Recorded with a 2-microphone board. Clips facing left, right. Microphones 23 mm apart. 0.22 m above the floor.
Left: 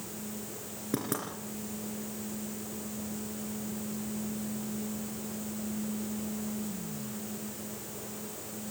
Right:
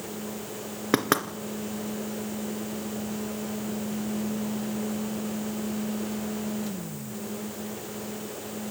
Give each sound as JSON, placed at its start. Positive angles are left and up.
{"t": 0.9, "sound": "knocking", "side_deg": -55, "distance_m": 1.9}